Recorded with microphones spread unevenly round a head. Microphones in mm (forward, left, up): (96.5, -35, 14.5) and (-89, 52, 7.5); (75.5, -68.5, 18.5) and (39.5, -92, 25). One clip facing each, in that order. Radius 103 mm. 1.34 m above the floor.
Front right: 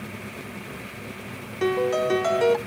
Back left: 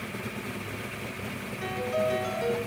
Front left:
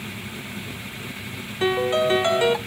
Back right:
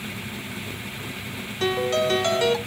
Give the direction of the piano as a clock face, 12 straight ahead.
1 o'clock.